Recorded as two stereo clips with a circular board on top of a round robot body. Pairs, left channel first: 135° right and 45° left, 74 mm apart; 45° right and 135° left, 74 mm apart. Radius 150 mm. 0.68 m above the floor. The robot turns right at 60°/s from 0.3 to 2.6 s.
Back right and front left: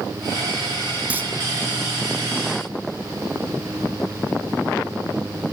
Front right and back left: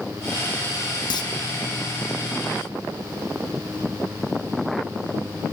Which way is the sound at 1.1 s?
25° right.